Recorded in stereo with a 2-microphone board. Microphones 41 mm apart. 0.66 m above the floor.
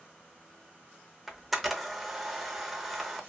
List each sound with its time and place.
1.3 s a camera shutter: 5° right (ahead or behind), 0.6 m